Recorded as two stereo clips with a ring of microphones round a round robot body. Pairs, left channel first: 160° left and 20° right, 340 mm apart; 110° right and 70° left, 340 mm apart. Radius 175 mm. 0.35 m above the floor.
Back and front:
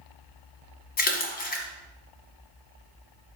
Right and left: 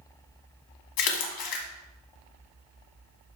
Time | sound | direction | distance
1.0 | a splash | 140° right | 1.5 m